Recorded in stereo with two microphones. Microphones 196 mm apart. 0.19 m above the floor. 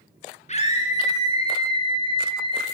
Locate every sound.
0.5 s a scream: 35° left (ahead or behind), 2 m; by 2.6 s 25° left (ahead or behind), 3 m